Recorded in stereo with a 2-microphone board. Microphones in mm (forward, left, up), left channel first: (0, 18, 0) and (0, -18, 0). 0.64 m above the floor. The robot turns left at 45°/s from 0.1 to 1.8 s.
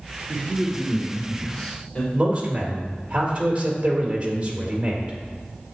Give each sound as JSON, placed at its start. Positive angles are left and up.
{"t": 0.3, "sound": "a man speaking", "azimuth_deg": -150, "distance_m": 1.9}
{"t": 2.1, "sound": "a man speaking", "side_deg": -30, "distance_m": 2.5}